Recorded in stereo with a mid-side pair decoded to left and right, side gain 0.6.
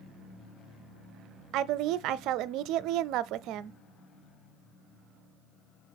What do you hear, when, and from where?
1.5 s a woman speaking: 65° right, 0.6 m